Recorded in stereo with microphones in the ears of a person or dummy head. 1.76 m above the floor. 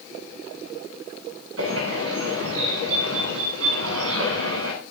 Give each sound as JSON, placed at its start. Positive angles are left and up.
{"t": 1.6, "sound": "a bird", "side_deg": -85, "distance_m": 9.0}